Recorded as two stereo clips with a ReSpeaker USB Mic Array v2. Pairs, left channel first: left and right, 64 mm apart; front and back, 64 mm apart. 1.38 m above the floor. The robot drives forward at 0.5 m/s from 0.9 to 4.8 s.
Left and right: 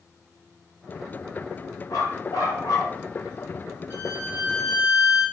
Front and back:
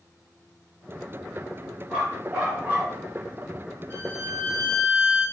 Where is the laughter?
No laughter in this recording.